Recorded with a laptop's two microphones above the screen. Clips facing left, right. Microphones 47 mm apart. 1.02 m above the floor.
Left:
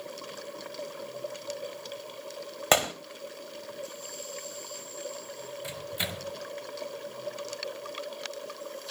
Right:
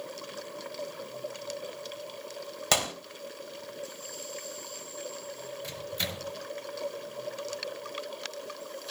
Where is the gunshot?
25° left (ahead or behind), 2.5 m.